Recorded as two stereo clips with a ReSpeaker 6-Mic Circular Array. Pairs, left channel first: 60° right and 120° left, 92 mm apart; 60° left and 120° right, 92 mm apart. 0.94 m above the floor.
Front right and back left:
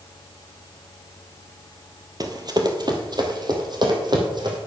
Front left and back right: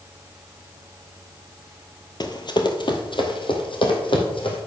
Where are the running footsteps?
90° left, 1.4 m; by 4.6 s 85° left, 3 m.